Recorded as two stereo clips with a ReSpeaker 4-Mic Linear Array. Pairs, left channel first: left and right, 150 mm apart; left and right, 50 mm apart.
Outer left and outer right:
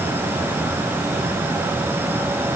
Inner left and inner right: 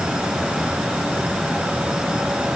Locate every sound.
Only background noise.